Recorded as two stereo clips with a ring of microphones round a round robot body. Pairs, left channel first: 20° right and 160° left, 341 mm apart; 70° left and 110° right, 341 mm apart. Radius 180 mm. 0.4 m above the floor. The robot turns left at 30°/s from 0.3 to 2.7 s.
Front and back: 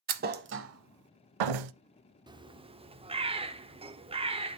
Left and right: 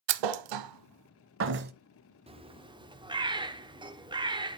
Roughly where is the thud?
Behind right.